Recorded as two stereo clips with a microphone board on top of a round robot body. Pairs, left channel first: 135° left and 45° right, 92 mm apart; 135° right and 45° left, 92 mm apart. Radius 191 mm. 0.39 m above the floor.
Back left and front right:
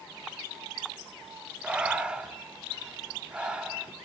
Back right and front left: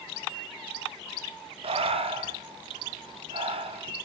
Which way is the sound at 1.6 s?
35° left.